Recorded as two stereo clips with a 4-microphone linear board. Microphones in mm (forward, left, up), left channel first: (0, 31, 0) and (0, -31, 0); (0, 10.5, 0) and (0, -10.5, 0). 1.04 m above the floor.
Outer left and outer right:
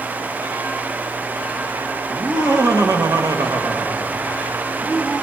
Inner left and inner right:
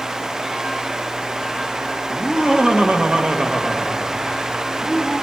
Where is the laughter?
50° right (ahead or behind), 2 m; by 5.2 s 10° right (ahead or behind), 3.5 m.